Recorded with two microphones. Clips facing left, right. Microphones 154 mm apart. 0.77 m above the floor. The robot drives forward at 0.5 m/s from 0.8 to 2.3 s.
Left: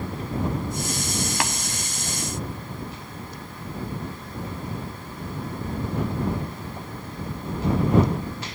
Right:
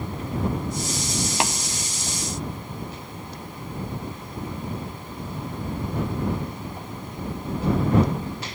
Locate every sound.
1.4 s tapping: 25° right (ahead or behind), 0.7 m; by 1.5 s 20° right (ahead or behind), 0.8 m